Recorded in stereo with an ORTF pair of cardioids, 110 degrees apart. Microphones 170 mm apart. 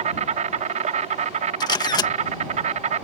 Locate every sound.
0.0 s an insect: 45° right
1.6 s a camera shutter: 25° left